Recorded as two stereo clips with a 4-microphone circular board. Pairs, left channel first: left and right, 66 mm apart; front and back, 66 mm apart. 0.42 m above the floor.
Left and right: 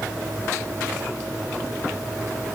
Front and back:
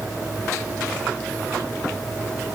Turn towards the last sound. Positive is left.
No sound to turn to.